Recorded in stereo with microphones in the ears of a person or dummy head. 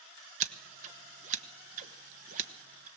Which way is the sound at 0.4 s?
40° right (ahead or behind).